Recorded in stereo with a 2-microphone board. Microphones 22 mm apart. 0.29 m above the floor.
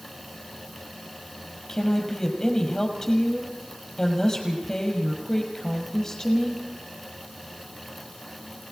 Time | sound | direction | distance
1.7 | a woman speaking | 25° left (ahead or behind) | 6.5 m